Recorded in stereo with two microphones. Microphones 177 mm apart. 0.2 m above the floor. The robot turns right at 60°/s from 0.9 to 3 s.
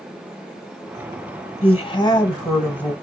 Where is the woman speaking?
90° left, 1.1 m; by 2.9 s 165° left, 1.1 m.